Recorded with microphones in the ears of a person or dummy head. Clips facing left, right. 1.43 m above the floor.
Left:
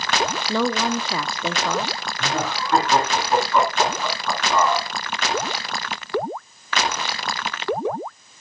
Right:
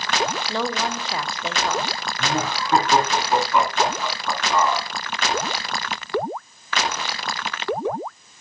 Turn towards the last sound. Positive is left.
turn(degrees=-10)  # may be behind; listen again after turning